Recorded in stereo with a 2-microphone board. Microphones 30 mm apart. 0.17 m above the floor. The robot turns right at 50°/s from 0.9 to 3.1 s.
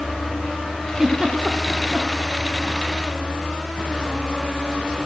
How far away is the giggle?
About 1.9 m.